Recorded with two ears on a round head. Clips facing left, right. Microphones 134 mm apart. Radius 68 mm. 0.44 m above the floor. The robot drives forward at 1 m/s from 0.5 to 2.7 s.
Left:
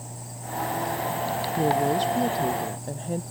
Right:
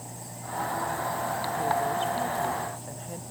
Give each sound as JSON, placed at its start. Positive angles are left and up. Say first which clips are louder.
{"t": 1.6, "sound": "a woman speaking", "louder": "left 5 dB", "side_deg": 45}